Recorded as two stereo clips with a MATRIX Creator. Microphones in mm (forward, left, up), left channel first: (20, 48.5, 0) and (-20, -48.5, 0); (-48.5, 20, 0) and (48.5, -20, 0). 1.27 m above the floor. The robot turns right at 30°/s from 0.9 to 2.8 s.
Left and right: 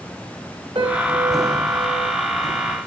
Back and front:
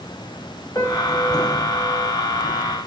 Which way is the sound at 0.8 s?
150° right.